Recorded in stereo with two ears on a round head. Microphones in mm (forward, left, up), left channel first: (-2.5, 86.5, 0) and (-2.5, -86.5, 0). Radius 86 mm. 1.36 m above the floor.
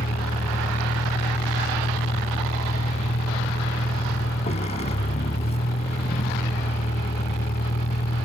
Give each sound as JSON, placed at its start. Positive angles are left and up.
{"t": 0.0, "sound": "a vehicle", "side_deg": 35}